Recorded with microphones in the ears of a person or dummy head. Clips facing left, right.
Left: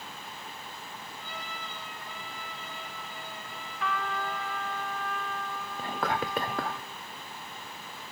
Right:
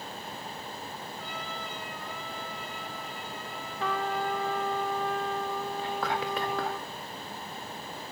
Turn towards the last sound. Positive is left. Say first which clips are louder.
# left 3 dB
turn(degrees=40)  # may be behind; listen again after turning